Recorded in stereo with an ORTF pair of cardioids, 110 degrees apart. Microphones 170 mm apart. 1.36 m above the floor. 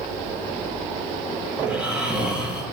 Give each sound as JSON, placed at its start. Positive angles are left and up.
{"t": 1.6, "sound": "snoring", "azimuth_deg": -5, "distance_m": 7.5}